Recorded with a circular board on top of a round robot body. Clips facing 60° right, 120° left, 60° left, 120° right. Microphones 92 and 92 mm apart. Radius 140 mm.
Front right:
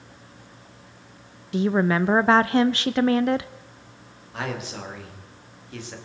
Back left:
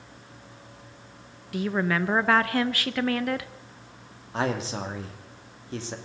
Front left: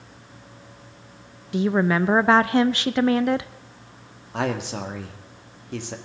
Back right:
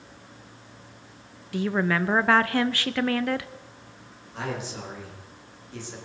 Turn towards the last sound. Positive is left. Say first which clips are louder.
# back left 4 dB, front left 7 dB
turn(degrees=65)